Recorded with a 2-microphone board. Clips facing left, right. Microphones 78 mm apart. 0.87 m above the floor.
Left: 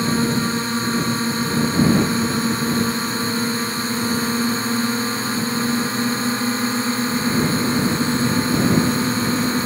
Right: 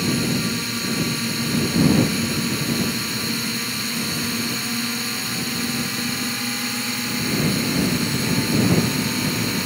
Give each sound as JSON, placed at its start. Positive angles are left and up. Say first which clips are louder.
{"t": 0.0, "sound": "a drone", "louder": "left 3 dB", "side_deg": 35}